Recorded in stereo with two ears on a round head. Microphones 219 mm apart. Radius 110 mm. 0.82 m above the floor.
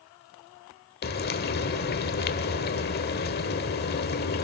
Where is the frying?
40° left (ahead or behind), 1.2 m.